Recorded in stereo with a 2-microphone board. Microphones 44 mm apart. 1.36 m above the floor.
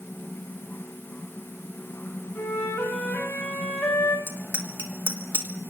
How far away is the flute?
About 4 m.